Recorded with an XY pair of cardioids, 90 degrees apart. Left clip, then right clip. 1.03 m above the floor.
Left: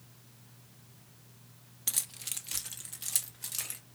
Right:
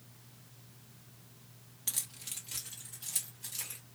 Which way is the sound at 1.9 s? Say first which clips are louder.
Left 4 dB; 35° left.